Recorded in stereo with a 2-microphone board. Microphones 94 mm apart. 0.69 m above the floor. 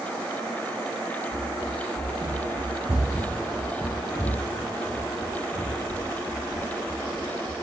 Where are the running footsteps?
55° right (ahead or behind), 1.4 m; by 7.5 s 65° left (ahead or behind), 2.5 m.